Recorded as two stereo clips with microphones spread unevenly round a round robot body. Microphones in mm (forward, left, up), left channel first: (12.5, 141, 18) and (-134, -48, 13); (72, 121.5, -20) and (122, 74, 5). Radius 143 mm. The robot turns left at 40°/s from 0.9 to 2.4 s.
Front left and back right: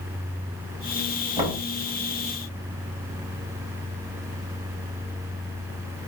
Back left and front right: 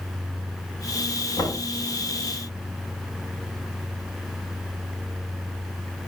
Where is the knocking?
165° left, 6.5 m; by 1.7 s 150° left, 6.5 m.